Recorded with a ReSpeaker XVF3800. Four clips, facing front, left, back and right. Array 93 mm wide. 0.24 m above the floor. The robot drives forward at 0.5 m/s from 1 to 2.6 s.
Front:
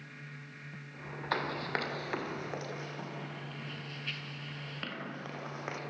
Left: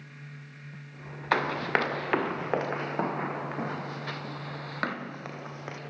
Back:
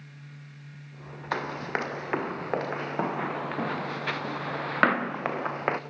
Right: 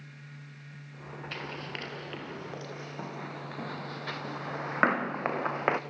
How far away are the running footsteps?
About 2.5 m.